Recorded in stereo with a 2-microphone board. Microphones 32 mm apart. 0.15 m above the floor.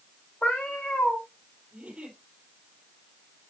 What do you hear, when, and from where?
0.4 s a cat meowing: 70° left (ahead or behind), 2.5 m
1.7 s a giggle: 35° right (ahead or behind), 5 m